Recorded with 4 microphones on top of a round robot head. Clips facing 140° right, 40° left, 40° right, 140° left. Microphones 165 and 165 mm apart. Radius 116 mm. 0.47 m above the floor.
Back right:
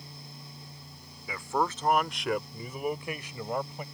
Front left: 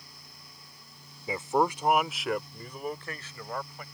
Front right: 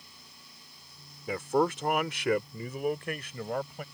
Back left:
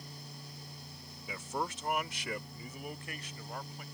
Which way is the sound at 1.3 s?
20° right.